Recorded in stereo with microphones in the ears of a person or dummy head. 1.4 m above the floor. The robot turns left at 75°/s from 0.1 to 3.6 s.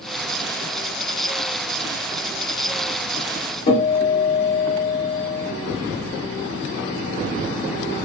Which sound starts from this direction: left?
A guitar, at 3.7 s.